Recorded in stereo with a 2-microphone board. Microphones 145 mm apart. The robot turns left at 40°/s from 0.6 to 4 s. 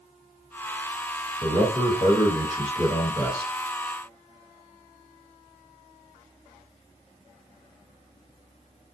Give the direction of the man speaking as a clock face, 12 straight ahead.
9 o'clock.